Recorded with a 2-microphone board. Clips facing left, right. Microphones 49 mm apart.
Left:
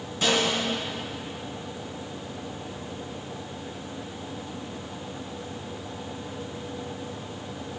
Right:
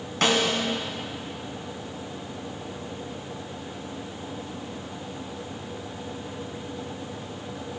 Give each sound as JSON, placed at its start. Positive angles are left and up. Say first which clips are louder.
{"t": 0.2, "sound": "a snare drum", "louder": "right 1 dB", "side_deg": -75, "distance_m": 3.0}